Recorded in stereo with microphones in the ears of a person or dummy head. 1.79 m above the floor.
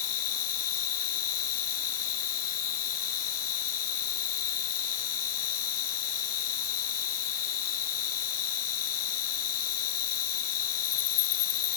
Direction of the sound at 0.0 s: 80° left.